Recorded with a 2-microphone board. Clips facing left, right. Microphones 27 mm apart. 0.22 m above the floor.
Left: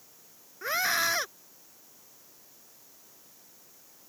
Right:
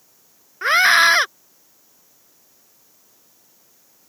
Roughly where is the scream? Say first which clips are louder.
Right 14 dB; right.